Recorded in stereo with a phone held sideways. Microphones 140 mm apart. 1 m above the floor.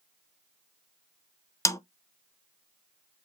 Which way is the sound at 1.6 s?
20° left (ahead or behind).